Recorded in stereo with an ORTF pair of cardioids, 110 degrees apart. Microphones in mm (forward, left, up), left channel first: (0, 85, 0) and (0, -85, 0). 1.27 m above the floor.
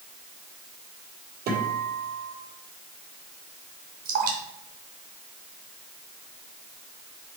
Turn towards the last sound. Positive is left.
turn(degrees=-55)